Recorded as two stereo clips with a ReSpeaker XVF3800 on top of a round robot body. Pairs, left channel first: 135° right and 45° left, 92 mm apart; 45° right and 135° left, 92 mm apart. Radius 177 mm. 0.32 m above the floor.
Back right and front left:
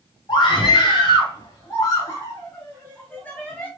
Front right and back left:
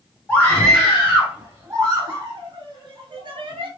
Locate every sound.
0.3 s a scream: 120° right, 1.3 m; by 3.7 s 145° left, 2.0 m